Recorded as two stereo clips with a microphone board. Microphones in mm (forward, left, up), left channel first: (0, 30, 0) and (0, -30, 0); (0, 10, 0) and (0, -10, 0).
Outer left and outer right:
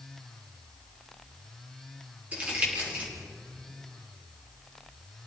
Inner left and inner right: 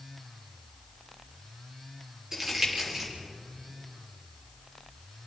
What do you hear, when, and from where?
2.3 s crumpling: 25° right (ahead or behind), 6 m